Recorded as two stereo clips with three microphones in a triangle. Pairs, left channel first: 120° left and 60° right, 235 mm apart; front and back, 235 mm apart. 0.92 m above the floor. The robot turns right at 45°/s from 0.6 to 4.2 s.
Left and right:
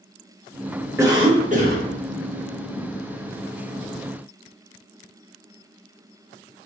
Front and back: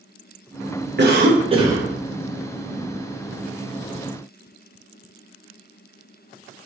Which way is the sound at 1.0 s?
135° right.